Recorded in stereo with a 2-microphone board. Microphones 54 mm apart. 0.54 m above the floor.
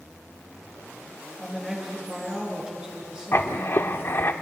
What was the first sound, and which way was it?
A woman speaking, 15° right (ahead or behind).